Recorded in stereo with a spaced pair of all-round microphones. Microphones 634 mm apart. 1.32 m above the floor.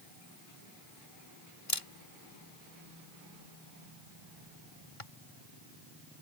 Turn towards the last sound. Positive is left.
turn(degrees=55)  # may be behind; listen again after turning